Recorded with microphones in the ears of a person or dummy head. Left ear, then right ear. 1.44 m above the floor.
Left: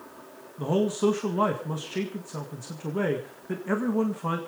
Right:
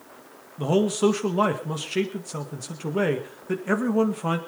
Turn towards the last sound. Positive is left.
turn(degrees=-20)  # may be behind; listen again after turning